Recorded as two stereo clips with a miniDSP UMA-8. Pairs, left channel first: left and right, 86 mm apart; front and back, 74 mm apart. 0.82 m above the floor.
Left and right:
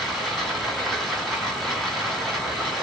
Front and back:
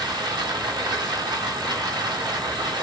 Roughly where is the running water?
Behind.